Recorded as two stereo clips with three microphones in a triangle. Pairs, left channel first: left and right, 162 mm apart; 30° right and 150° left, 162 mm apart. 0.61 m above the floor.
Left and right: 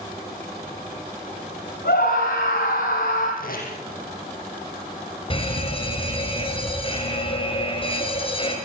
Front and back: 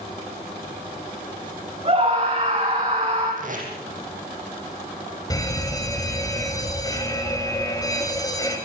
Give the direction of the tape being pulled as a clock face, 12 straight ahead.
8 o'clock.